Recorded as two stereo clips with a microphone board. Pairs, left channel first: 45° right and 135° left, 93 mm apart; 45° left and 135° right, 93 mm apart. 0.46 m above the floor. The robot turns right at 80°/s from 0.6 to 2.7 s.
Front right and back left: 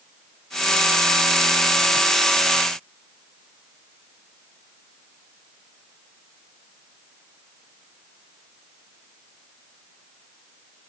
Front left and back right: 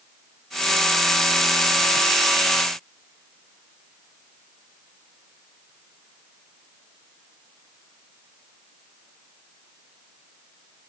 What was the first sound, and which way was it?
Only background noise.